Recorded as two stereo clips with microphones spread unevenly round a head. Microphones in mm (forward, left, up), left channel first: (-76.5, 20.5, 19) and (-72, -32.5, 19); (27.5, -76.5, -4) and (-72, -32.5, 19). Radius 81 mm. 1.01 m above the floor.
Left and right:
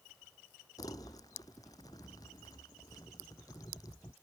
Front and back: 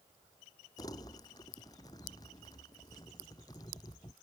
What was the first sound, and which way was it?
Crumpling, 45° left.